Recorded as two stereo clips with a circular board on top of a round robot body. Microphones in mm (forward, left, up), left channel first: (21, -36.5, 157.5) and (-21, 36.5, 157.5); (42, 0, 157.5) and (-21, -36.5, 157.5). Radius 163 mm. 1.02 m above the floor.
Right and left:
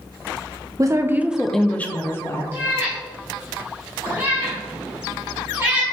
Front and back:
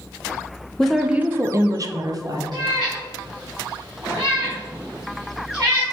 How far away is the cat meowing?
About 1.2 m.